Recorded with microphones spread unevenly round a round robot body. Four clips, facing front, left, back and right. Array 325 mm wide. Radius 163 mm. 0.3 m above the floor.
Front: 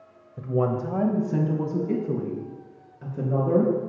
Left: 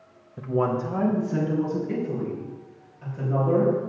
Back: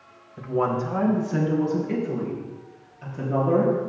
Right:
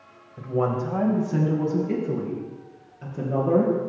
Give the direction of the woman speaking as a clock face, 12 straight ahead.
11 o'clock.